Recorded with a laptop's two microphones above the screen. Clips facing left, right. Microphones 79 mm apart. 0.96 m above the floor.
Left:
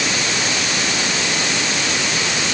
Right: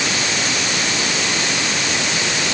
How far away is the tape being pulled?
No tape being pulled in this recording.